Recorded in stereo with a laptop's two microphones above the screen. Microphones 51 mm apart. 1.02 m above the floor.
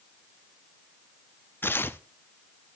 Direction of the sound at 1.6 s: 45° left (ahead or behind).